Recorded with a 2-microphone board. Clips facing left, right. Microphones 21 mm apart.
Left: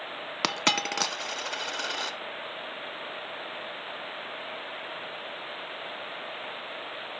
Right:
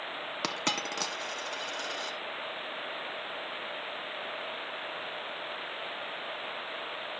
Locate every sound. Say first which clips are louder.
0.4 s a dropped coin: left 6 dB; 35° left (ahead or behind), 0.6 m